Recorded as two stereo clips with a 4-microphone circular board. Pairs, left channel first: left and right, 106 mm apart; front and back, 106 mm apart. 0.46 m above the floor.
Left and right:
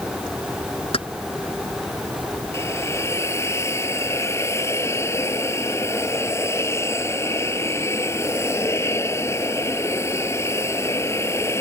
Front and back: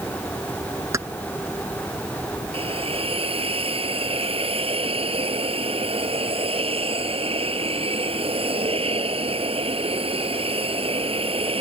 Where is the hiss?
155° left.